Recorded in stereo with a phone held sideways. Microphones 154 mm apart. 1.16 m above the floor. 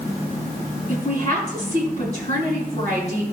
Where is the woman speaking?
50° left (ahead or behind), 6.5 m.